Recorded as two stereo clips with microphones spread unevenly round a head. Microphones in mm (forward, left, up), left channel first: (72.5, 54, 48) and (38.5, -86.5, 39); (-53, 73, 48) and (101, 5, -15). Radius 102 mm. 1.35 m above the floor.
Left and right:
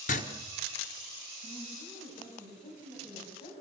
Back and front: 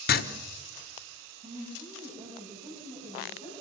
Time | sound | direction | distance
0.1 | writing | 125° left | 1.2 m
1.4 | a woman speaking | 25° left | 9.5 m